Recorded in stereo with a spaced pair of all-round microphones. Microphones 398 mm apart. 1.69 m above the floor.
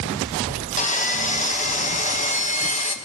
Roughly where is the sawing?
Centre.